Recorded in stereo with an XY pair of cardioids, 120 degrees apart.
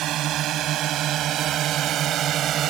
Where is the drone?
65° right; by 2.7 s 55° right.